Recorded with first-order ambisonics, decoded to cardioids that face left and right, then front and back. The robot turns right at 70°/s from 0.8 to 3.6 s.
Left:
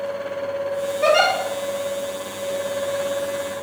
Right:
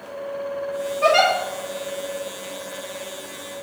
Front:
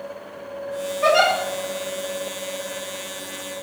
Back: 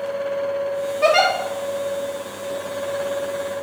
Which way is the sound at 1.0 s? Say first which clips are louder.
Even, back 1 dB; 145° right.